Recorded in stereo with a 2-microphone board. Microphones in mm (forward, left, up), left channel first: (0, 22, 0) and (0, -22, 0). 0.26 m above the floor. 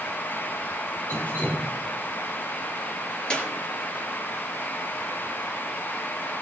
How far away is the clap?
About 4.5 m.